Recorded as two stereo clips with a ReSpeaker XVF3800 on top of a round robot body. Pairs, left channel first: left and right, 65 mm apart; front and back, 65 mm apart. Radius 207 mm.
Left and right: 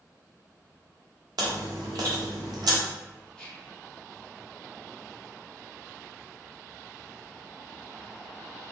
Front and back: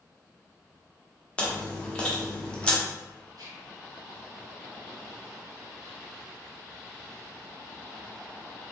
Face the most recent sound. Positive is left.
turn(degrees=165)